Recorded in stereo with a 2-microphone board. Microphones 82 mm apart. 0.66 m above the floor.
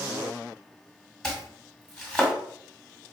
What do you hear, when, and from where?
1.2 s chopping: 5° left (ahead or behind), 1.6 m